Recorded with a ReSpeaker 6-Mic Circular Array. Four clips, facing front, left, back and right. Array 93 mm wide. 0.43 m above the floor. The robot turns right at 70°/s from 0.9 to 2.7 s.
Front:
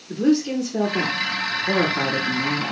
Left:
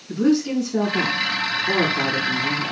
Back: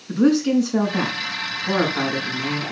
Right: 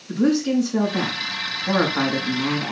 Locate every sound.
0.1 s a woman speaking: 175° right, 3.5 m; by 2.7 s 50° right, 3.5 m